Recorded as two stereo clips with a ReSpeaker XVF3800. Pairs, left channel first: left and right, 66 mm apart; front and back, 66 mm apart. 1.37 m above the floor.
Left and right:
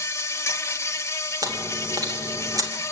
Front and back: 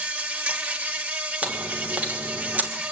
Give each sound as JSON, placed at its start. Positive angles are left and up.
{"t": 0.0, "sound": "an insect", "azimuth_deg": 120, "distance_m": 1.0}
{"t": 1.4, "sound": "chewing", "azimuth_deg": -115, "distance_m": 2.5}